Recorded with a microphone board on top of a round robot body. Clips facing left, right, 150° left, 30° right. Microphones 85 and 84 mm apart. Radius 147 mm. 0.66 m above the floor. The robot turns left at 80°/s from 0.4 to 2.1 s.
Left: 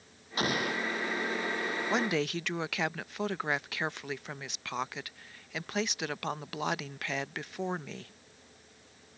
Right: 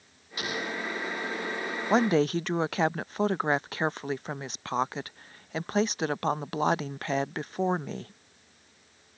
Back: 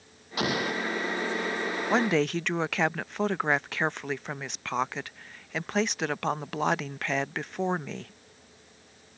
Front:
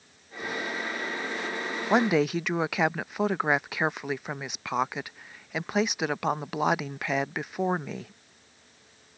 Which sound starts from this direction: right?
A woman speaking, at 1.9 s.